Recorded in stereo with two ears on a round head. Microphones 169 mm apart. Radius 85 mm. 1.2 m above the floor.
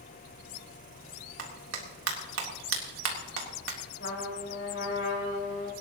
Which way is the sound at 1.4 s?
75° right (ahead or behind).